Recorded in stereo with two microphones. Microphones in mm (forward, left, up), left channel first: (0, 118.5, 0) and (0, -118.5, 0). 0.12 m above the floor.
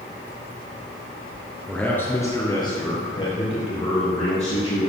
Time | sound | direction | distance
1.7 | a man speaking | 5° left (ahead or behind) | 1.4 m